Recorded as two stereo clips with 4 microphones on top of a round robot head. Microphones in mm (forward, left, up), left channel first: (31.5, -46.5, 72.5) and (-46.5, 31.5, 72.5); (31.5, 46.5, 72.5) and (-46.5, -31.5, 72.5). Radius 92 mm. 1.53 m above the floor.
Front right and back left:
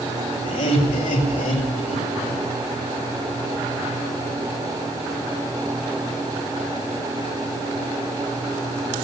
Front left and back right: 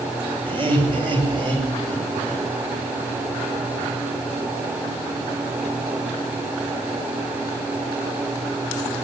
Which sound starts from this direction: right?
Laughter, at 0.5 s.